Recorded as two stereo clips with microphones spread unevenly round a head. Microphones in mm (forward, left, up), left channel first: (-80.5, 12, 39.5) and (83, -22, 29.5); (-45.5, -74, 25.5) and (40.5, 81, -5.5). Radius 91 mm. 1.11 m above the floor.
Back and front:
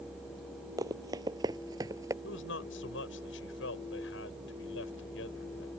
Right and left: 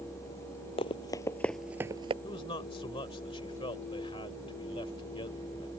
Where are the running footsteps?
80° right; by 2.1 s 40° left.